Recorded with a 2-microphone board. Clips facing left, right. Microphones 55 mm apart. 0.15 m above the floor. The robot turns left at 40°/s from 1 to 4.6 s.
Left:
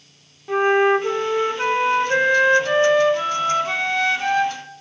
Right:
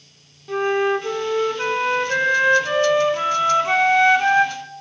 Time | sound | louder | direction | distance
0.5 | a flute | left 3 dB | 20° left (ahead or behind) | 1.2 m